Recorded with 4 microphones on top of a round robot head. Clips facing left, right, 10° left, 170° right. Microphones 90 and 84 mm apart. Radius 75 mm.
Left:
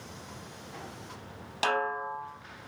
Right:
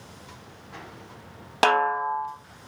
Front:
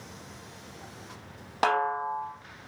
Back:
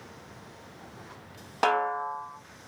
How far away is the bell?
I don't hear a bell.